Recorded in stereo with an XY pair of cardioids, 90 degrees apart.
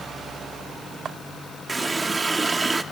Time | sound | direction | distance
1.7 | a running tap | 25° right | 1.4 m